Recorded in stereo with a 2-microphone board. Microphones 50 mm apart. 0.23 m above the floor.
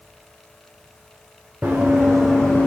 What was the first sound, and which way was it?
Running footsteps, 30° right (ahead or behind).